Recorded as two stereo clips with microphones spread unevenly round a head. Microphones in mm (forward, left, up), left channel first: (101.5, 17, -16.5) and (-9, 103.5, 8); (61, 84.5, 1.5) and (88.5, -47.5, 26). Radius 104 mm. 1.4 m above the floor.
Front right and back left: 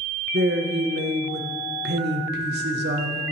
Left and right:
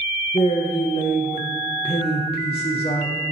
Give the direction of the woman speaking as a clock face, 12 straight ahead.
7 o'clock.